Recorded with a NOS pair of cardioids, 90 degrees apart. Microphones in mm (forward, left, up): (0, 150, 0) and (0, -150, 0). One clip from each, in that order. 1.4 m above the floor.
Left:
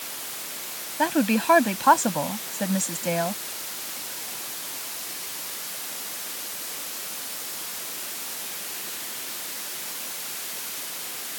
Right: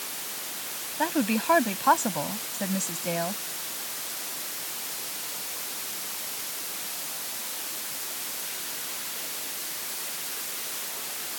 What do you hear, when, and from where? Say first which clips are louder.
1.0 s a woman speaking: left 4 dB; 25° left